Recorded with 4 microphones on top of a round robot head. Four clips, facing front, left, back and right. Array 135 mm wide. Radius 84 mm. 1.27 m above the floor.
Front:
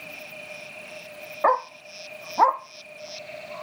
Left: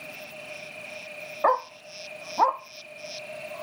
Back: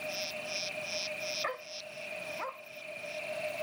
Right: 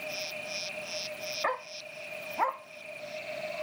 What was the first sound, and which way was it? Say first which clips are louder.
A dog barking: left 11 dB, front 17 dB; 35° left.